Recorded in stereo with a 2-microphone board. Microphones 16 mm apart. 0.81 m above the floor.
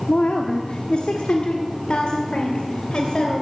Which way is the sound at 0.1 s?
65° left (ahead or behind).